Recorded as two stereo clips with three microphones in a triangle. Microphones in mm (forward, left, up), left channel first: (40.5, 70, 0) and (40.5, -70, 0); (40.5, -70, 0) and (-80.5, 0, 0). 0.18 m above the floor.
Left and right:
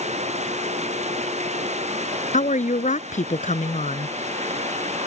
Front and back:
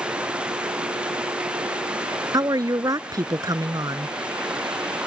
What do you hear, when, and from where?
0.0 s running water: 125° right
2.3 s a woman speaking: 90° left